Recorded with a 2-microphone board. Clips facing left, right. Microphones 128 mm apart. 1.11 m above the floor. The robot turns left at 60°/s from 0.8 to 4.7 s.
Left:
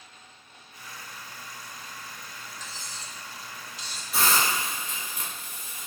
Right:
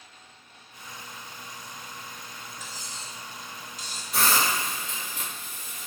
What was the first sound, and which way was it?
Cutlery clinking, 5° right (ahead or behind).